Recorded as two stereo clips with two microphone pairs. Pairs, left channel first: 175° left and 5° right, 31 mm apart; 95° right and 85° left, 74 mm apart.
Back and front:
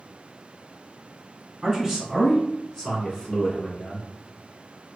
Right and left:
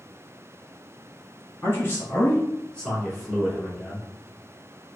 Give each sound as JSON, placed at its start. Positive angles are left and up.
{"t": 1.6, "sound": "a man speaking", "azimuth_deg": -90, "distance_m": 1.8}